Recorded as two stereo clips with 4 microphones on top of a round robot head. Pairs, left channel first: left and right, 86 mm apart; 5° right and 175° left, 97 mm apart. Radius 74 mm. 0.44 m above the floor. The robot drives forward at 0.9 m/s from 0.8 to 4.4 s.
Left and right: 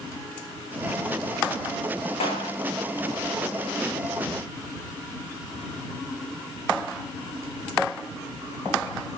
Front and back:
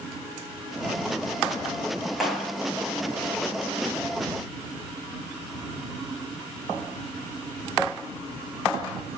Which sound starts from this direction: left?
A clap, at 2.2 s.